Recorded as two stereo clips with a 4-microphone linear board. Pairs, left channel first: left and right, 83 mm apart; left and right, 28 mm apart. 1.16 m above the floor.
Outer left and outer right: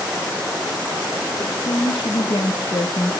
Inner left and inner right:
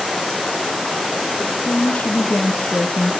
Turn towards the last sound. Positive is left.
turn(degrees=45)  # may be behind; listen again after turning